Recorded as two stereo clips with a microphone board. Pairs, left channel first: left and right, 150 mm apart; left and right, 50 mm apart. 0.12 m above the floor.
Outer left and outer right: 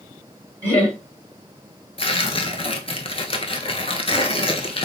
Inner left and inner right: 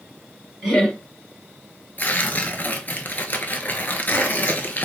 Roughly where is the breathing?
I don't hear breathing.